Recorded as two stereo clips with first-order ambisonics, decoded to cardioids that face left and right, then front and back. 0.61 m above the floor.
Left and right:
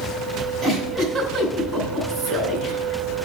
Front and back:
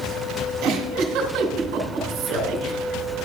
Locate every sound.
0.6 s a giggle: 160° right, 2.5 m